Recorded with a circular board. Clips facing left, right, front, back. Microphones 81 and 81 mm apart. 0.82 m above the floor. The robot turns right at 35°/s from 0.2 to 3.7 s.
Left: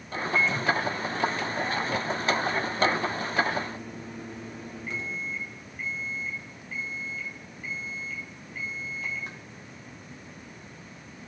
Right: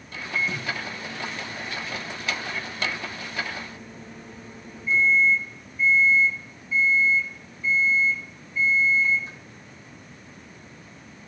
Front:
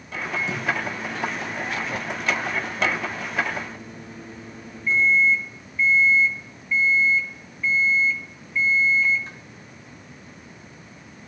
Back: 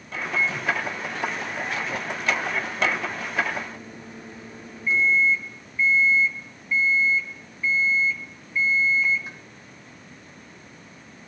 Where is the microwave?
15° right, 1.4 m; by 9.4 s 100° left, 1.4 m.